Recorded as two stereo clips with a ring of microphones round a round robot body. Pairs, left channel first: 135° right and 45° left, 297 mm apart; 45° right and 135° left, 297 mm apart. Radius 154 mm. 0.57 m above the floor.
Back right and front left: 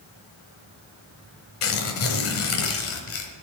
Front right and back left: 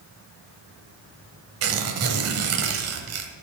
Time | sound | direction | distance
1.6 | tearing paper | straight behind | 1.0 m